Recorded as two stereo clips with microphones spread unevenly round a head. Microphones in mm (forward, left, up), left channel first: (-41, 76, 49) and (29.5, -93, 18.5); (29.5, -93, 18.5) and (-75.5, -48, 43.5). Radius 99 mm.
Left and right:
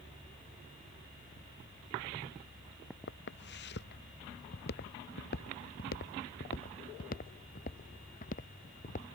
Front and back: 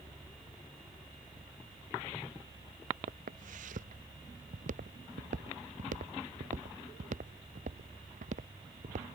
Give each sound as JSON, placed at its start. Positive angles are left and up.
{"t": 3.1, "sound": "footsteps", "azimuth_deg": 140}